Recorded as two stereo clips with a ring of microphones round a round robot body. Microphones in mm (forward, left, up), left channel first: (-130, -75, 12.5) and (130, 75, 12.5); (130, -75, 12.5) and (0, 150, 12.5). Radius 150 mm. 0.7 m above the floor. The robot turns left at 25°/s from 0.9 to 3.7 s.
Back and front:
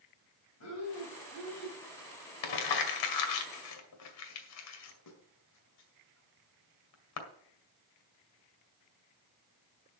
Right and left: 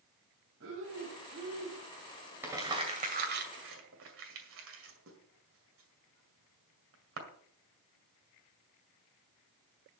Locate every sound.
0.6 s breathing: 170° left, 4.5 m; by 1.8 s 145° left, 4.5 m
2.4 s crumpling: 155° right, 2.0 m; by 7.2 s 170° left, 2.0 m